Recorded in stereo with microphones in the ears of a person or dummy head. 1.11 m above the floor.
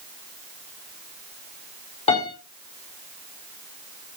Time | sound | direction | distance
2.1 | a piano | 35° left (ahead or behind) | 3.5 m